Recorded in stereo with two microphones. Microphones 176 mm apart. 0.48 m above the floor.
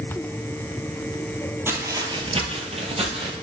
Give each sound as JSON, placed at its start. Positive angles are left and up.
{"t": 1.7, "sound": "footsteps", "side_deg": -15, "distance_m": 0.6}